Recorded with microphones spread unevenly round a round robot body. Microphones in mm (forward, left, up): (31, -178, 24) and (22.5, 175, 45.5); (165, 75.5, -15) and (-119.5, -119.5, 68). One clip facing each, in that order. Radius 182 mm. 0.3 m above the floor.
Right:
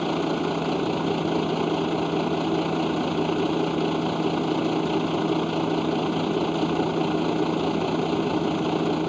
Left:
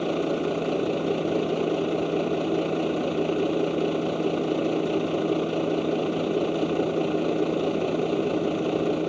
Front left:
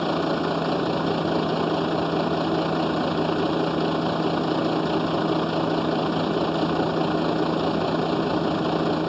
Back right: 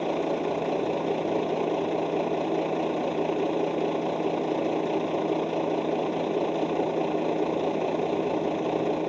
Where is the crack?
No crack in this recording.